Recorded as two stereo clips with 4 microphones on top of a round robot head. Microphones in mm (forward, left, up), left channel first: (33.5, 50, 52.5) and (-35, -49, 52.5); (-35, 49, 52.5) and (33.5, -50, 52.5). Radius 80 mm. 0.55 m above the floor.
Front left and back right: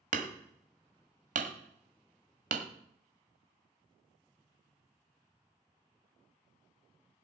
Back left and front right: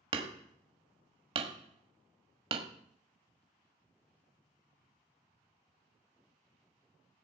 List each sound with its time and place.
0.1 s hammering: 100° right, 1.3 m